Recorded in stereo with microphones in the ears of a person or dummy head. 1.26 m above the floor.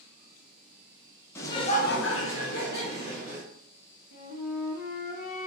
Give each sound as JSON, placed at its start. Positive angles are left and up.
{"t": 1.4, "sound": "laughter", "side_deg": 15, "distance_m": 0.6}
{"t": 4.1, "sound": "a flute", "side_deg": 50, "distance_m": 0.6}